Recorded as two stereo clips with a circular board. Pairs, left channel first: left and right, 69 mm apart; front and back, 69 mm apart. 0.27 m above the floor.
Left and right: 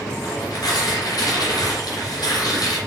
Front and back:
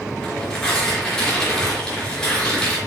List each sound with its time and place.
0.2 s tearing paper: 80° left, 4.5 m